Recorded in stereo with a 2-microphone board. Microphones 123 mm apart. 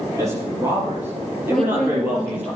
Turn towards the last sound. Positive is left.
turn(degrees=5)  # may be behind; listen again after turning